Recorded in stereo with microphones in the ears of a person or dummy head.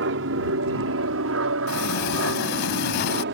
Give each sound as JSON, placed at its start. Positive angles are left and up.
{"t": 0.0, "sound": "an aircraft", "side_deg": -65}
{"t": 1.7, "sound": "a sliding door", "side_deg": 50}